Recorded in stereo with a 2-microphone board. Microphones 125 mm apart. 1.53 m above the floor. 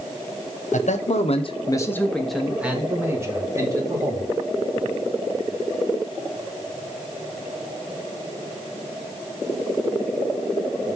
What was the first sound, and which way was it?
A man speaking, 80° left.